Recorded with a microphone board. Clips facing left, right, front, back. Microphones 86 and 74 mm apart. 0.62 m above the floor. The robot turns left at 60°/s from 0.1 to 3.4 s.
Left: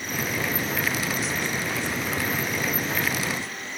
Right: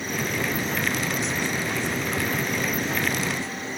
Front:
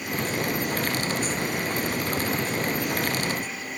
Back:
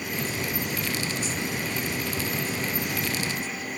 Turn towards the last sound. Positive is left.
No sound to turn to.